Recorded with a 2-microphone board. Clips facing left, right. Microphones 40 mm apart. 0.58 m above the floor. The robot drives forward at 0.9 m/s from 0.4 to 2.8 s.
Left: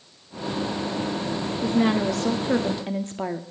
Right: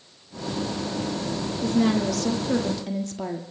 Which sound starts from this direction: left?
A woman speaking, at 1.6 s.